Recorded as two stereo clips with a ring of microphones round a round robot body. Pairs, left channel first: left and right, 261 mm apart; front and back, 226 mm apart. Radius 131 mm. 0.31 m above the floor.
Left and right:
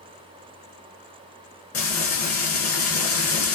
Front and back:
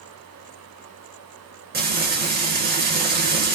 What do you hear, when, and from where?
1.7 s frying: 130° left, 2 m